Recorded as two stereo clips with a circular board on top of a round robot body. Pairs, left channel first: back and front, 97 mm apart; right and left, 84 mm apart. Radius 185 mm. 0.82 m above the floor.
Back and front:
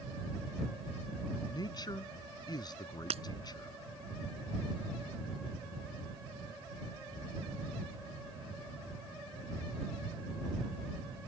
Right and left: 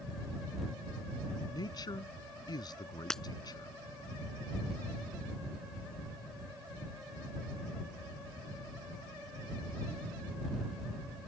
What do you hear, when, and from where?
1.5 s a man speaking: 130° right
3.1 s breaking glass: 5° right